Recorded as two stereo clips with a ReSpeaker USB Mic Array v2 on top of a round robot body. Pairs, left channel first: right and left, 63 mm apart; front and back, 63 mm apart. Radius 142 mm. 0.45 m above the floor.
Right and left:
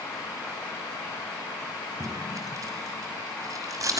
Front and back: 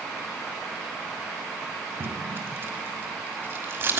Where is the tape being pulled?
125° left, 1.7 m.